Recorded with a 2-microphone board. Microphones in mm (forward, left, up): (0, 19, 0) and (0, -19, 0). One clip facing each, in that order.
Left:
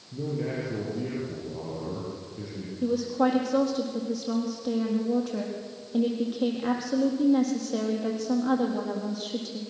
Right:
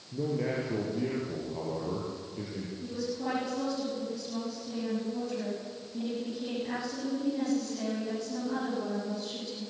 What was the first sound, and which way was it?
A man speaking, 15° right (ahead or behind).